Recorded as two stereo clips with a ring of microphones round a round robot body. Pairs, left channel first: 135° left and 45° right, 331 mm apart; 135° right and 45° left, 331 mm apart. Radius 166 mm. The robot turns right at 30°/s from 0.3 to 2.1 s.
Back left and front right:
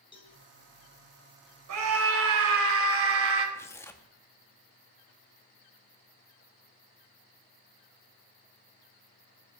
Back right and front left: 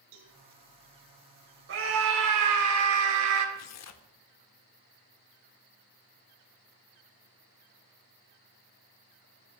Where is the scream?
10° right, 3.5 m; by 3.5 s 5° left, 3.5 m.